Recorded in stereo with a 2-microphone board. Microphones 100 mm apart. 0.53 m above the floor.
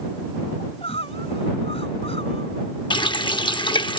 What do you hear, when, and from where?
0.6 s crying: 85° left
2.9 s a running tap: 50° left (ahead or behind)